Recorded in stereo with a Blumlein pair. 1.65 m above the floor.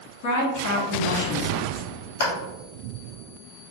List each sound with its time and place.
0.2 s a woman speaking: 60° left, 1.0 m
2.2 s a clap: 65° left, 1.0 m